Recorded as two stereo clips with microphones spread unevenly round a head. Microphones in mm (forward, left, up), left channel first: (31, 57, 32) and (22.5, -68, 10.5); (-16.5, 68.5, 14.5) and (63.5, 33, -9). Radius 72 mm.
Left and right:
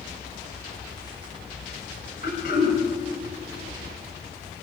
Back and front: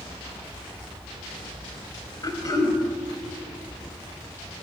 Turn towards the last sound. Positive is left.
turn(degrees=110)